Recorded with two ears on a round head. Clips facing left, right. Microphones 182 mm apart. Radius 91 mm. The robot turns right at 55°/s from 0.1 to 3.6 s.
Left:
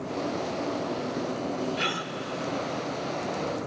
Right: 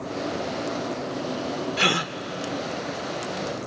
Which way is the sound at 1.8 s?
60° right (ahead or behind).